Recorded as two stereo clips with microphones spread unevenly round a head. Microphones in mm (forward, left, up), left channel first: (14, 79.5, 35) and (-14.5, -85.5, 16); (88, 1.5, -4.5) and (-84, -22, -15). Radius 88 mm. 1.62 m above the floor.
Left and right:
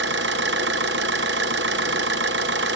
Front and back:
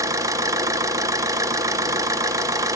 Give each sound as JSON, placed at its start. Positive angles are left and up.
{"t": 0.0, "sound": "an engine running", "azimuth_deg": -100, "distance_m": 0.9}